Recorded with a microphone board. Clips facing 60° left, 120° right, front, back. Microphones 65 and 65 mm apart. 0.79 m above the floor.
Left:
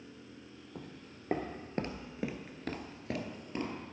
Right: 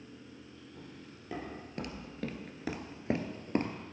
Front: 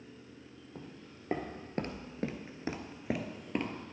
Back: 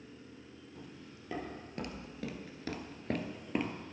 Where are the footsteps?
45° left, 1.5 m; by 3.8 s 95° right, 1.2 m.